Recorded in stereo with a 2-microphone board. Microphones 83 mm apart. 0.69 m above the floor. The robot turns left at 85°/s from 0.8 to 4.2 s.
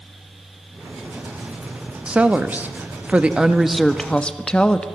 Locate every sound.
2.1 s a woman speaking: 10° right (ahead or behind), 0.5 m; by 4.8 s 10° left (ahead or behind), 0.5 m